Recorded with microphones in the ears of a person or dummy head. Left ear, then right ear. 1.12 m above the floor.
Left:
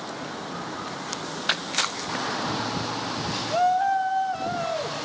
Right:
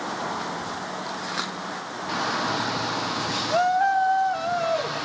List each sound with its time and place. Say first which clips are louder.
2.1 s a shout: right 2 dB; 10° right (ahead or behind), 0.6 m